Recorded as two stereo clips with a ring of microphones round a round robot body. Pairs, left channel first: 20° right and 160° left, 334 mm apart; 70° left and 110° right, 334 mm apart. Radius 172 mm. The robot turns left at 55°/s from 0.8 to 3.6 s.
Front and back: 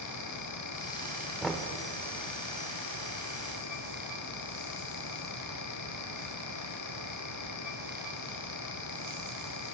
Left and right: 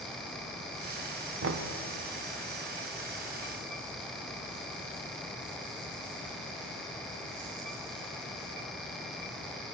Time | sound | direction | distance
1.4 | knocking | 110° right | 0.6 m